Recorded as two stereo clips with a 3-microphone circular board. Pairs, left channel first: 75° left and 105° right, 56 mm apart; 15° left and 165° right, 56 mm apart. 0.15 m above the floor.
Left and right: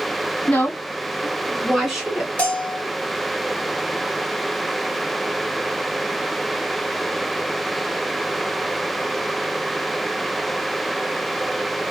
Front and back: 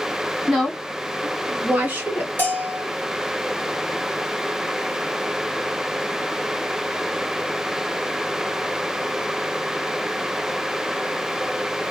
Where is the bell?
25° left, 1.7 m.